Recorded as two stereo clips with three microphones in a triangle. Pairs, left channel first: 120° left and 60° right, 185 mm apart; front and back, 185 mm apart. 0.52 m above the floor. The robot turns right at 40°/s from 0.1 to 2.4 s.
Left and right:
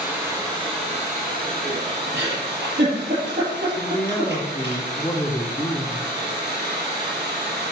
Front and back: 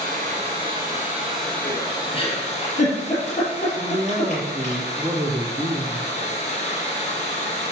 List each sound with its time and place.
0.0 s running water: 145° right, 5.5 m; by 7.7 s 50° right, 5.5 m
2.1 s a giggle: 60° right, 5.5 m; by 4.8 s 50° right, 5.5 m
3.8 s a man speaking: 165° left, 1.4 m